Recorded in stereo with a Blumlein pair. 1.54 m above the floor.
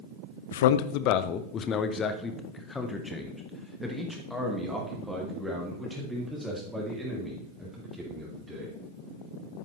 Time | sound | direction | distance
0.5 | a man speaking | 60° left | 0.8 m